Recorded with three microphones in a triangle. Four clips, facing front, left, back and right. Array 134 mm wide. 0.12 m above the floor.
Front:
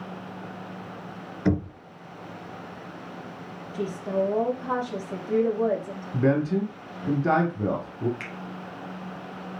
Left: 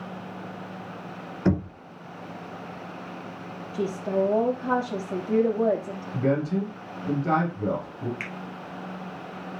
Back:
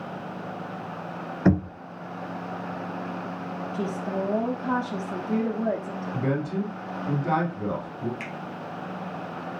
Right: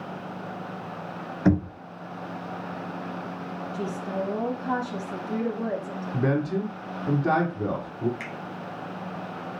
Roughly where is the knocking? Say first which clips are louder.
Right 2 dB, back 3 dB; behind.